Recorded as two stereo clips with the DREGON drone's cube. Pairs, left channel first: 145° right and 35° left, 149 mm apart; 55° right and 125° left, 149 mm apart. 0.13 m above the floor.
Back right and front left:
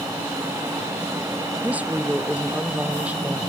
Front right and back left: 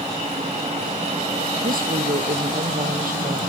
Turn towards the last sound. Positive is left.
turn(degrees=115)